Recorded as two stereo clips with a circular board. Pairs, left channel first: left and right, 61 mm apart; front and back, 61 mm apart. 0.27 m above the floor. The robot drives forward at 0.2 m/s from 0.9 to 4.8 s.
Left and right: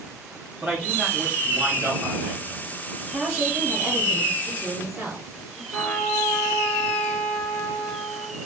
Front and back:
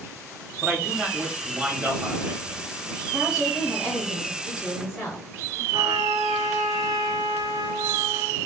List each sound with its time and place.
0.6 s a man speaking: 105° right, 1.2 m; by 2.6 s 130° right, 1.3 m
3.1 s a woman speaking: 100° right, 1.4 m; by 5.6 s 125° right, 1.5 m
5.7 s a trumpet: 165° left, 1.3 m